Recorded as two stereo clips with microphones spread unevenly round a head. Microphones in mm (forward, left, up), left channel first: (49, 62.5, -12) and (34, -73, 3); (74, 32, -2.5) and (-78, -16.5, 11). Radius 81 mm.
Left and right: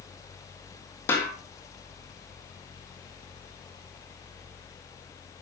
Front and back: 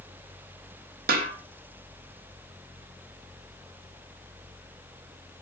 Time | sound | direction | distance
1.1 | a snare drum | 165° left | 3.5 m